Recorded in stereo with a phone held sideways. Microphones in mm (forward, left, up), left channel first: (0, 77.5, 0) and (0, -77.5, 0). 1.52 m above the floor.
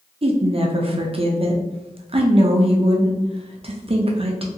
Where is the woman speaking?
40° right (ahead or behind), 0.5 m.